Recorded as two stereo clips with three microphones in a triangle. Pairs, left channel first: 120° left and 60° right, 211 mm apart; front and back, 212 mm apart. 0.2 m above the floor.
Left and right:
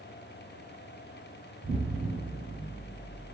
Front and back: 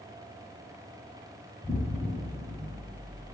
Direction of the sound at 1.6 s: 60° right.